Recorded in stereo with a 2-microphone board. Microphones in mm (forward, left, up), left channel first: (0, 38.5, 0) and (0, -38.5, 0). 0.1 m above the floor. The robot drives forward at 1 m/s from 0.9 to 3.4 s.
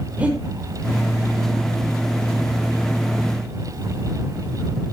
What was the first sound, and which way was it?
Breathing, 15° right (ahead or behind).